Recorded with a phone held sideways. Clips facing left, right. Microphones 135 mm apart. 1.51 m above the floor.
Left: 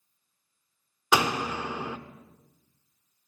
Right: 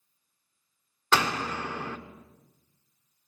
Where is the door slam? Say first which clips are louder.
Left 2 dB; 15° left (ahead or behind), 0.5 m.